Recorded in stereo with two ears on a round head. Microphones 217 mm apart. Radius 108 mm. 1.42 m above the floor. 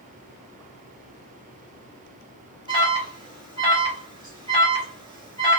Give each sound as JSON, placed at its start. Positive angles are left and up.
{"t": 2.7, "sound": "an alarm", "side_deg": -20, "distance_m": 1.1}